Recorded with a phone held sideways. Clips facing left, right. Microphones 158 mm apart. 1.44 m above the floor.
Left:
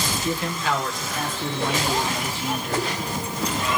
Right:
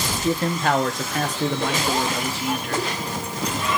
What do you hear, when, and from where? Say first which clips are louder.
0.2 s a man speaking: right 6 dB; 25° right (ahead or behind), 0.7 m; by 2.9 s 70° right (ahead or behind), 2.5 m